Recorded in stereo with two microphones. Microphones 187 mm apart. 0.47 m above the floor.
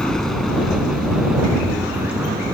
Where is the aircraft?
5° left (ahead or behind); by 2.5 s 10° right (ahead or behind).